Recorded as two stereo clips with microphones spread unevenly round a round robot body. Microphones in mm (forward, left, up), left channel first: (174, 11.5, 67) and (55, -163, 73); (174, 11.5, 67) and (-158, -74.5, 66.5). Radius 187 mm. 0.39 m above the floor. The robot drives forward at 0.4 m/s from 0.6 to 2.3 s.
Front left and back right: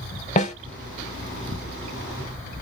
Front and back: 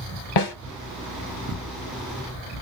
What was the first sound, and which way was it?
A snare drum, 5° right.